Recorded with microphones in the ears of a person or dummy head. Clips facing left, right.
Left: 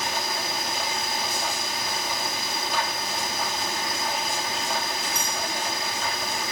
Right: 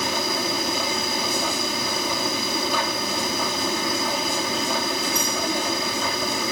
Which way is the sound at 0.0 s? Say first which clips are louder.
Right 5 dB; 85° right.